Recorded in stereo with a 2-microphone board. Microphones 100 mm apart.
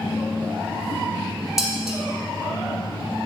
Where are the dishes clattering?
5° right (ahead or behind), 1.3 m.